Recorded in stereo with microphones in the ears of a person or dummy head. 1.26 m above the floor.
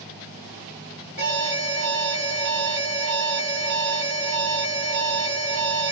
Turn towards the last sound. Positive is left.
turn(degrees=-60)  # may be behind; listen again after turning